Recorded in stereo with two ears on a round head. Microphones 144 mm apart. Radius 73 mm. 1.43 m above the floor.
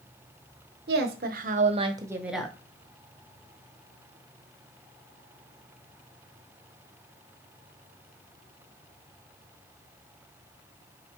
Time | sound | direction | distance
0.9 | a woman speaking | 75° right (ahead or behind) | 1.2 m